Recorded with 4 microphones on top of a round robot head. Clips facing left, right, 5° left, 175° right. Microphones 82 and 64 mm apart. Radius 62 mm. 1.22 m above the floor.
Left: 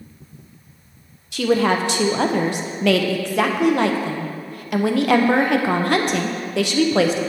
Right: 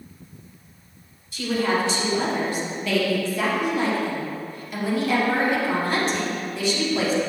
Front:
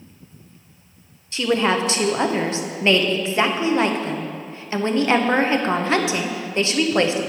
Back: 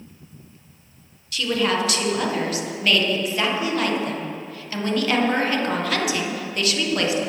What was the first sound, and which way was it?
A woman speaking, 65° left.